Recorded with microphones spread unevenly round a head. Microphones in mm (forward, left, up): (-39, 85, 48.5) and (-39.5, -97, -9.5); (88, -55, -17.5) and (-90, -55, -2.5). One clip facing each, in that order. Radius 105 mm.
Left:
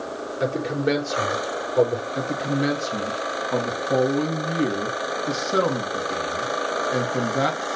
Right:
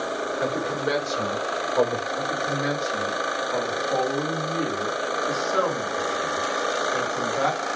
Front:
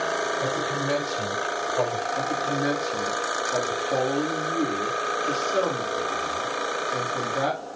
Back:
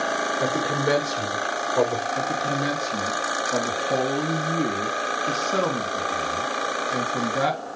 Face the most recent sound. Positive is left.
turn(degrees=130)